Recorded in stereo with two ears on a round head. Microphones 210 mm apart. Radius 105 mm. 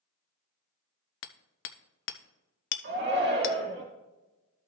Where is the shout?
45° right (ahead or behind), 2.5 m.